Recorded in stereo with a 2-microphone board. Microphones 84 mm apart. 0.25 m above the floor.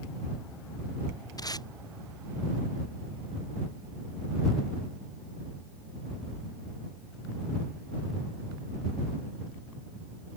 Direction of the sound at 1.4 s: 50° left (ahead or behind).